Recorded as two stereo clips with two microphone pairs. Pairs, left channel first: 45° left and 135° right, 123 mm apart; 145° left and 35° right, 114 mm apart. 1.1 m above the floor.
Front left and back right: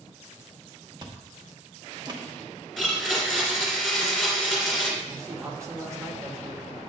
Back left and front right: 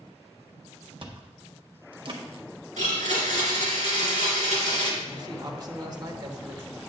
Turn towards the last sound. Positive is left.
turn(degrees=-75)